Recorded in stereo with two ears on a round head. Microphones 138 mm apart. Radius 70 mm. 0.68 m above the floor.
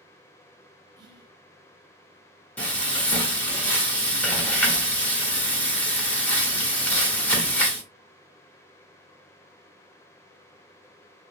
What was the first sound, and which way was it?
Whispering, 30° right (ahead or behind).